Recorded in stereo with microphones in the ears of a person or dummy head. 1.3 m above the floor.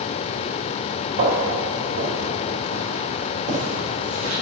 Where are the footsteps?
65° right (ahead or behind), 3 m; by 4.3 s 75° right (ahead or behind), 5.5 m.